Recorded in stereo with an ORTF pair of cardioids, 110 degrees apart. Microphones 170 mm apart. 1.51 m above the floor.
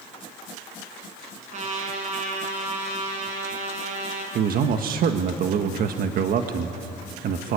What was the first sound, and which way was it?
A trumpet, 45° right.